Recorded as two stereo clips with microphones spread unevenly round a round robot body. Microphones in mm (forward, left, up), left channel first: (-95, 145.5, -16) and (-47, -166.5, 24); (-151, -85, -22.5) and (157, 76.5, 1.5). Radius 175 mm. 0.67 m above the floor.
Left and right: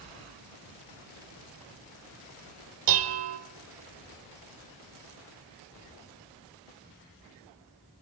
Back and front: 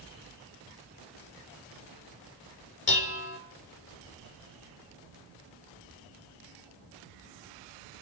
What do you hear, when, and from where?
2.9 s dishes clattering: 100° right, 1.8 m